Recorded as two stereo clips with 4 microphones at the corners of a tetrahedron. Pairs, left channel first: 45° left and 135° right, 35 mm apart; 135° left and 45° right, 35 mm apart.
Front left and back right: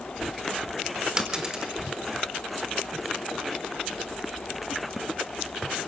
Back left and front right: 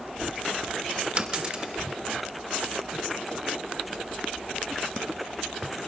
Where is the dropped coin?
80° right, 1.4 m.